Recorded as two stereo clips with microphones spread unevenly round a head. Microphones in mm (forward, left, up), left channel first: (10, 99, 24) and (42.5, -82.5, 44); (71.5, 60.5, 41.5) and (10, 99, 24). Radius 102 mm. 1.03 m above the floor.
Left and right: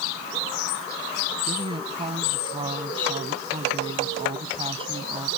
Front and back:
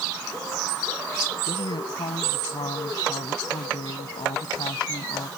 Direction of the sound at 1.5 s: 20° right.